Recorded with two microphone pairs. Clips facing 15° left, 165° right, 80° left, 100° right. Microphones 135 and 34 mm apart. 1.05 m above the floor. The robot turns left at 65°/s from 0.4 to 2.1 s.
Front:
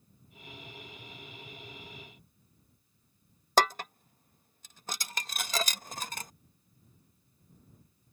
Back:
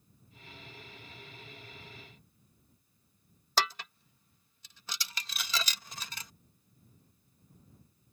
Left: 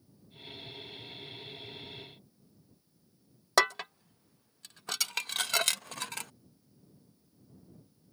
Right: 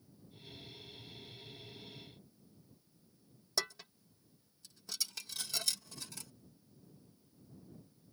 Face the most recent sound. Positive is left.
turn(degrees=55)